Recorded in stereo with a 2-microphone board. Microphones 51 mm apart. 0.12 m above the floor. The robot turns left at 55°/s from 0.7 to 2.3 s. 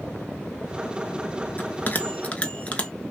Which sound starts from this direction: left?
A bell, at 1.6 s.